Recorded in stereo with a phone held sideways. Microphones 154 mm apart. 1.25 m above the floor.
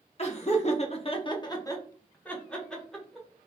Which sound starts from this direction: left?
Laughter, at 0.2 s.